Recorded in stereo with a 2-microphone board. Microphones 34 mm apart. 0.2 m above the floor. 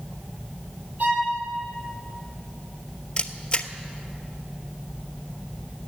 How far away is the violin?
About 5.5 m.